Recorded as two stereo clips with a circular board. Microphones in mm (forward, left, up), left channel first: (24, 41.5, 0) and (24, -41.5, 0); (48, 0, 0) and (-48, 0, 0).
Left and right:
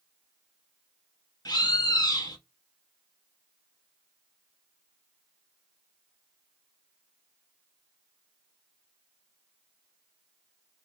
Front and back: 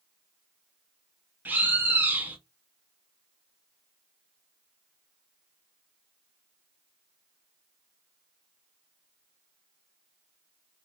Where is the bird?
110° left, 1.2 m.